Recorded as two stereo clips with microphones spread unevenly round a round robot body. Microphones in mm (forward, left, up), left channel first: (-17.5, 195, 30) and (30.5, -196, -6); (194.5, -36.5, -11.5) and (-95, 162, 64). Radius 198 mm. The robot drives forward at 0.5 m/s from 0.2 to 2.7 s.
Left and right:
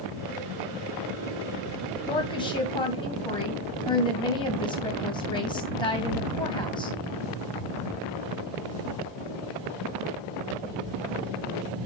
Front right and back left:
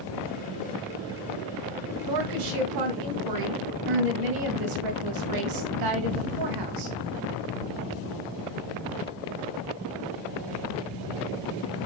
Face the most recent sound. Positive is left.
turn(degrees=180)